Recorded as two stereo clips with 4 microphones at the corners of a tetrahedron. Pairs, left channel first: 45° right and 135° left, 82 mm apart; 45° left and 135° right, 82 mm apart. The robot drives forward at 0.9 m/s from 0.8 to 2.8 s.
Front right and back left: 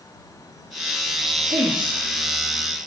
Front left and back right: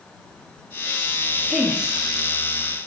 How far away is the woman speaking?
About 3 m.